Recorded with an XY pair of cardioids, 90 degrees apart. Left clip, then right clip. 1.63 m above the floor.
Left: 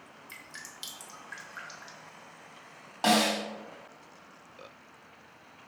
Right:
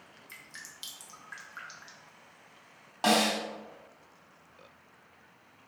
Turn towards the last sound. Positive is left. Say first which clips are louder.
# left 1 dB
turn(degrees=-5)